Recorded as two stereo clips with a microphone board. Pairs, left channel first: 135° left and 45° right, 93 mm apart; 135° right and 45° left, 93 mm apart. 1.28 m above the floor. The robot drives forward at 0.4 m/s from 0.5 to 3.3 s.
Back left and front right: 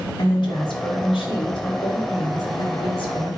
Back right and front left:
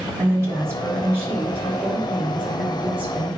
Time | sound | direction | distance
0.2 | a woman speaking | 105° left | 3.5 m